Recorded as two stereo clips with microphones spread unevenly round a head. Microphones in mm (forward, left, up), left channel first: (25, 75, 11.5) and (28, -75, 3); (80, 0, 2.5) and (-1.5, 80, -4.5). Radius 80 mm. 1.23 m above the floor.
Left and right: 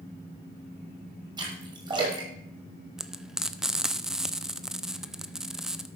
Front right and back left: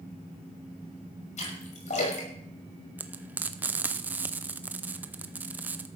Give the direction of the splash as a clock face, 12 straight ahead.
1 o'clock.